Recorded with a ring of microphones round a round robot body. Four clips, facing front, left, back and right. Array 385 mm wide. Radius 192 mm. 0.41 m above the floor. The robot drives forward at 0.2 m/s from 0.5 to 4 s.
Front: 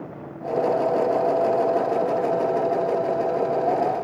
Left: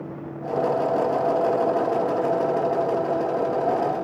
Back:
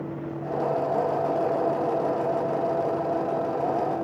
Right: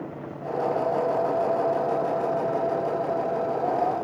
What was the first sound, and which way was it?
Only background noise.